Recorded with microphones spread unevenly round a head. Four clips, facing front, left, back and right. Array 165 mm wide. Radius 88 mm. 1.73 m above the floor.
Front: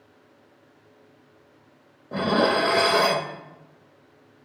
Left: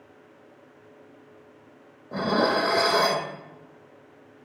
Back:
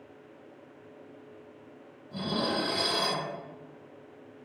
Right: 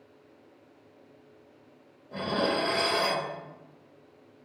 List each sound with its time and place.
2.1 s dishes clattering: 40° left, 1.4 m